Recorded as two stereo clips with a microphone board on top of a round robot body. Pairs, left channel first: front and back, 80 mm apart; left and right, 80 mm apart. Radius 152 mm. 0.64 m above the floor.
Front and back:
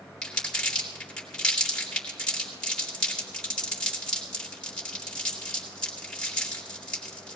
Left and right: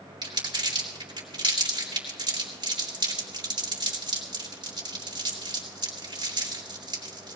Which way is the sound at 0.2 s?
80° right.